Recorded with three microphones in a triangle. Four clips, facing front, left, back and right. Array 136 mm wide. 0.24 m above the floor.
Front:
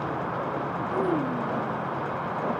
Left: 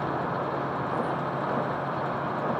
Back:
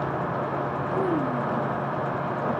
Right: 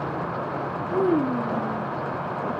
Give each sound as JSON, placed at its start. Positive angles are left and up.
{"t": 0.9, "sound": "a child speaking", "azimuth_deg": -90}